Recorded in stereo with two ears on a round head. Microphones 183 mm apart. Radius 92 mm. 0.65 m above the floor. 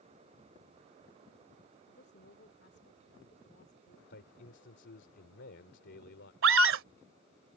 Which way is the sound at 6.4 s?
70° right (ahead or behind).